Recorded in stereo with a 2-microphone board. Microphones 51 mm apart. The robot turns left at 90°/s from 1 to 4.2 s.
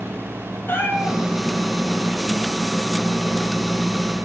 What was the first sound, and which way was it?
A cat meowing, 45° left (ahead or behind).